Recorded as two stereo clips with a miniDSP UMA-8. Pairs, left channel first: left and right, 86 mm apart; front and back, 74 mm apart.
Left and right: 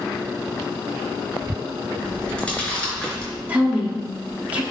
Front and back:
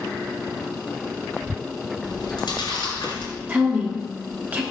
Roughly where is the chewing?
Ahead.